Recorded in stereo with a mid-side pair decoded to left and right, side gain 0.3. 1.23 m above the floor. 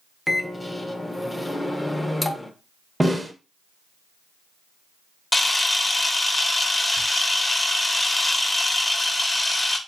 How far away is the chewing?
I don't hear chewing.